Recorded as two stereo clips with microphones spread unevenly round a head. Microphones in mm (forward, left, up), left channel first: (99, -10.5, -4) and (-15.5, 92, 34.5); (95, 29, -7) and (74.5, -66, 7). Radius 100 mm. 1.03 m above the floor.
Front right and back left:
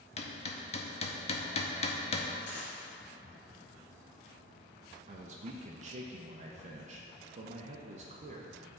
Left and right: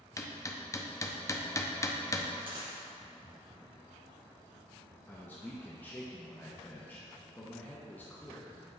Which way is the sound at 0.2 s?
15° left.